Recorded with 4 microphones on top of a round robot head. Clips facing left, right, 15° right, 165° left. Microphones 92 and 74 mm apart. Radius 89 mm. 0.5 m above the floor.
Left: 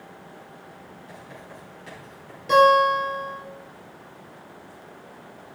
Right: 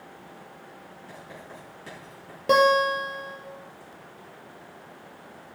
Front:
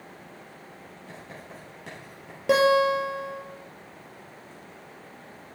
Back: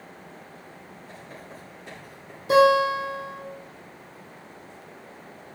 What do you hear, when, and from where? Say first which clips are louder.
1.1 s writing: even, even; 35° right, 6.5 m
2.5 s a guitar: left 4 dB, back 2 dB; 45° right, 3.5 m